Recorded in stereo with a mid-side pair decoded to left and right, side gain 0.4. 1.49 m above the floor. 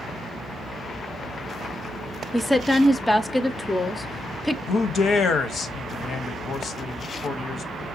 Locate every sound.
2.3 s a woman speaking: 15° left, 0.5 m
4.7 s a man speaking: 65° left, 0.7 m